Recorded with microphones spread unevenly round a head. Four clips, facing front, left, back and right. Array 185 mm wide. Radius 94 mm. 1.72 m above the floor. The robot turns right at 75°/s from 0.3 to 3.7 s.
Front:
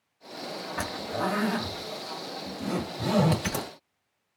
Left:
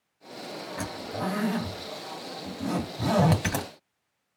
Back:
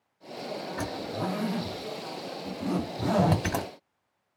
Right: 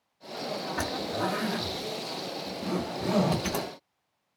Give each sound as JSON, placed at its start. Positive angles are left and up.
{"t": 0.8, "sound": "a zipper", "azimuth_deg": -50, "distance_m": 1.7}